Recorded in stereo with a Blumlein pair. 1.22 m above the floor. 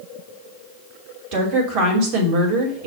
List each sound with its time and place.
1.3 s a woman speaking: 40° right, 3 m